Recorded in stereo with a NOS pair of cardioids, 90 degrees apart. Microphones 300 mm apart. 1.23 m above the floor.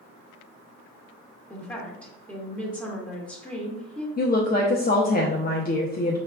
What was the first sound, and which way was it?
A woman speaking, 5° left.